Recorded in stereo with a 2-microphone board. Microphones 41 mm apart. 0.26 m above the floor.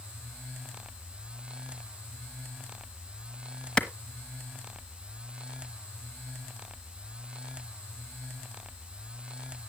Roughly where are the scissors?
No scissors in this recording.